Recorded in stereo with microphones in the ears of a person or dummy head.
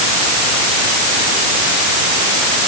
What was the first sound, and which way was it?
Only background noise.